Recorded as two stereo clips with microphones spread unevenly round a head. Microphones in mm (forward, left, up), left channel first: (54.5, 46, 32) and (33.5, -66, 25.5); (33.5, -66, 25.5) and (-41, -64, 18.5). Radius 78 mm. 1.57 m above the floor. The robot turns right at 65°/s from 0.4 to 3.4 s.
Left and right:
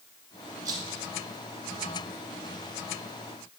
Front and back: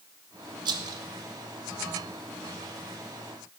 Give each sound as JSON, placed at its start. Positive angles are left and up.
{"t": 0.7, "sound": "a rattle", "azimuth_deg": -170, "distance_m": 1.0}